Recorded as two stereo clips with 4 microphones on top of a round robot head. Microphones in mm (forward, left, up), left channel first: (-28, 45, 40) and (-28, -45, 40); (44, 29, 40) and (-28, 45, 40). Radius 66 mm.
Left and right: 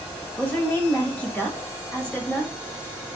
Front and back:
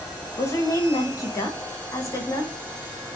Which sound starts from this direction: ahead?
A woman speaking, at 0.4 s.